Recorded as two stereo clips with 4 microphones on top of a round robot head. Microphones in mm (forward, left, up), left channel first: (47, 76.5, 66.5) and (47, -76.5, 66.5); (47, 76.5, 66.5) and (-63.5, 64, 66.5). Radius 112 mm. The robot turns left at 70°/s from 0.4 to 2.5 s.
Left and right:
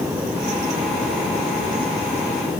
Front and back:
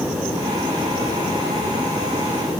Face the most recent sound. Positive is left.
No sound to turn to.